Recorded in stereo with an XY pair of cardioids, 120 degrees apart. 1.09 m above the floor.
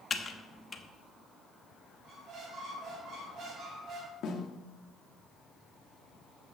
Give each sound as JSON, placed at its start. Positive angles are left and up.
{"t": 0.1, "sound": "typing on a keyboard", "azimuth_deg": 25, "distance_m": 1.2}
{"t": 2.0, "sound": "a squeak", "azimuth_deg": -55, "distance_m": 3.5}
{"t": 4.2, "sound": "a snare drum", "azimuth_deg": 55, "distance_m": 1.6}